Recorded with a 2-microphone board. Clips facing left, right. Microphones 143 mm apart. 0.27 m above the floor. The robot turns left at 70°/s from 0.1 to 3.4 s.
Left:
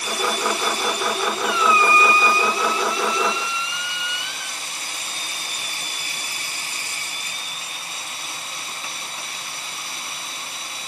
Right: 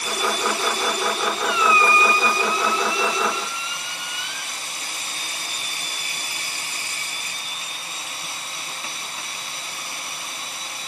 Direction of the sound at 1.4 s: 5° left.